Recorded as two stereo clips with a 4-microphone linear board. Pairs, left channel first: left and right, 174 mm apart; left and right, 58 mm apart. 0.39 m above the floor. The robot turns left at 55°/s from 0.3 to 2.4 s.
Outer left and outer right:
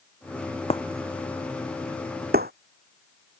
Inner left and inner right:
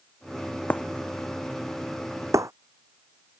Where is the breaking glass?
30° left (ahead or behind); by 2.5 s 60° right (ahead or behind).